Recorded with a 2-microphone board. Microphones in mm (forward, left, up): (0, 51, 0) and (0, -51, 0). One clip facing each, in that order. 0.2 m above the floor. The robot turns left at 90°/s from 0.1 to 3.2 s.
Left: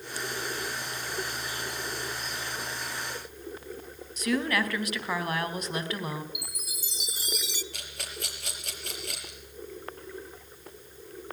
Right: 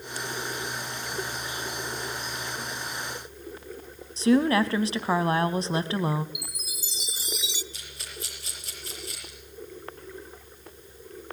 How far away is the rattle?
About 5.5 m.